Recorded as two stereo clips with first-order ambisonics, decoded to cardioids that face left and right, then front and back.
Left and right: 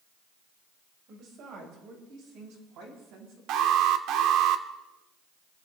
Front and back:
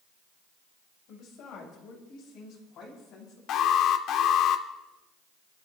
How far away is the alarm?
About 0.9 m.